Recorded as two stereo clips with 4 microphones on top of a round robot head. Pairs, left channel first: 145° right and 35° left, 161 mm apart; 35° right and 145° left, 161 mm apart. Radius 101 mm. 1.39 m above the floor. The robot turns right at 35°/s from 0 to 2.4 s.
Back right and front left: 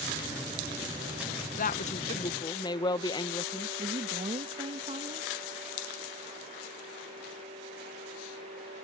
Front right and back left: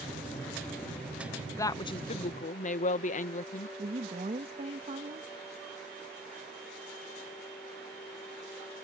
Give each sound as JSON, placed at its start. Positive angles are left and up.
{"t": 1.6, "sound": "a woman speaking", "azimuth_deg": -110}
{"t": 3.8, "sound": "a woman speaking", "azimuth_deg": 95}